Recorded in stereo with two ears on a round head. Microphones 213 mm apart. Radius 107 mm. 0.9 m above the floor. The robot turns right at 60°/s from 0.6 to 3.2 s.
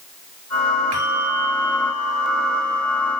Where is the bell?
110° right, 4 m; by 3.2 s 30° left, 4 m.